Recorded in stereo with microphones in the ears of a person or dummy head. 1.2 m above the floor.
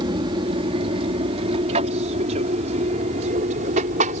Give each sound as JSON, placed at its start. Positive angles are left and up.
{"t": 0.0, "sound": "an aircraft", "side_deg": -25}